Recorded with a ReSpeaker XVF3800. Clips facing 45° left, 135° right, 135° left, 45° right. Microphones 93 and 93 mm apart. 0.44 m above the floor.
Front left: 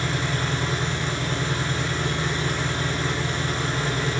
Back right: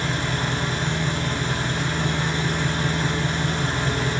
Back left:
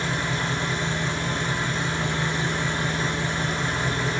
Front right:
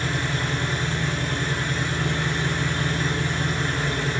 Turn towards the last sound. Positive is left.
turn(degrees=-160)